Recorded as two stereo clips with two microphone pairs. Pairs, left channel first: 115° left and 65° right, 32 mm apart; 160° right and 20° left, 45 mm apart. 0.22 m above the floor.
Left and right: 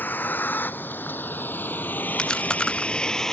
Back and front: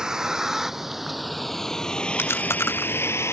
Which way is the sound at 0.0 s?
95° left.